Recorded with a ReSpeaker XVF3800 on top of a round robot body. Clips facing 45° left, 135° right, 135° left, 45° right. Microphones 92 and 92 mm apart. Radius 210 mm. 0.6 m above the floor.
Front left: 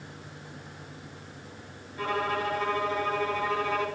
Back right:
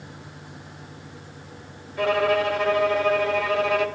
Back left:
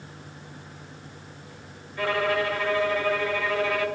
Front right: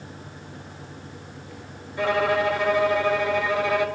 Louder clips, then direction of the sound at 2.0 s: Back right 8 dB, front right 3 dB; 115° right.